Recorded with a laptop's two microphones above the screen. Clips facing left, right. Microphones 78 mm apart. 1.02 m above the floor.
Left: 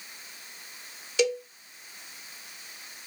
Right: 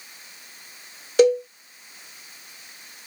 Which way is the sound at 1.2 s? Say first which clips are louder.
Right 10 dB; 40° right (ahead or behind).